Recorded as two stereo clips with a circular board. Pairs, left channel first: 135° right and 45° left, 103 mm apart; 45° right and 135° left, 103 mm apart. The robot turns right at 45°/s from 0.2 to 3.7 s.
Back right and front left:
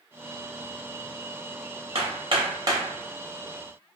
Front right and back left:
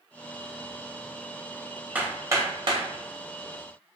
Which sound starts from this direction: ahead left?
Hammering, at 1.9 s.